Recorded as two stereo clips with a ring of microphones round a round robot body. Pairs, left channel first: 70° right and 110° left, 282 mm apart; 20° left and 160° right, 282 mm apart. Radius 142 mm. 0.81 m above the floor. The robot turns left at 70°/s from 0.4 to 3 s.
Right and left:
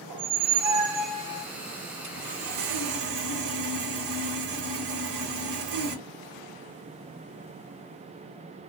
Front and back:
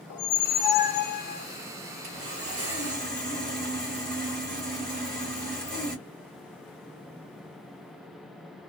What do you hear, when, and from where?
0.1 s a squeak: 70° left, 0.6 m; by 1.5 s 5° right, 0.6 m
2.0 s sawing: straight behind, 1.5 m; by 6.0 s 110° left, 1.5 m